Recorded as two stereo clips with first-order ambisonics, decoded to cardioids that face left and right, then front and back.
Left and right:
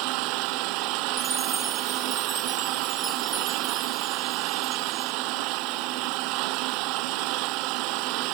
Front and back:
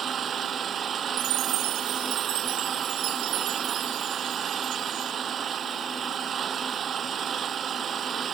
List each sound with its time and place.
0.0 s an engine running: 115° right
1.2 s a chime: 170° right